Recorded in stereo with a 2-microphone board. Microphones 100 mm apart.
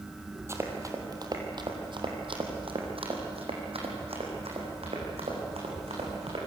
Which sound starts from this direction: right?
Running footsteps, at 0.5 s.